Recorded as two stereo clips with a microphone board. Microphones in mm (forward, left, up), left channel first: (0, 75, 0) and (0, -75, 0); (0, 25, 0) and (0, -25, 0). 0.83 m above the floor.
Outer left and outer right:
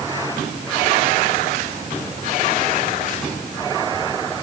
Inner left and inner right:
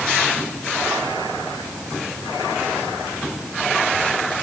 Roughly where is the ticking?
No ticking in this recording.